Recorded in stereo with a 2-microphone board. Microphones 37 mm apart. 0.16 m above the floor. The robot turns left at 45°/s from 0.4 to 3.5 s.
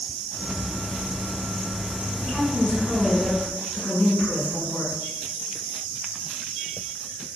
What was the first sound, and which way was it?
A woman speaking, 140° left.